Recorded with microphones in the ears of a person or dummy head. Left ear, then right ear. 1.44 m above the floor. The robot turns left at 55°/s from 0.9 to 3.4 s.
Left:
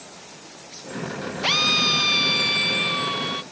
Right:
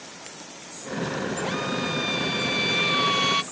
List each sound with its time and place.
1.4 s a drill: 85° left; by 3.4 s 25° right